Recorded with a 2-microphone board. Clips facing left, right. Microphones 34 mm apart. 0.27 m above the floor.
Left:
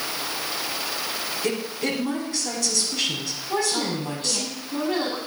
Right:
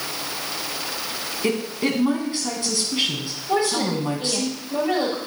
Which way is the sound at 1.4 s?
30° right (ahead or behind).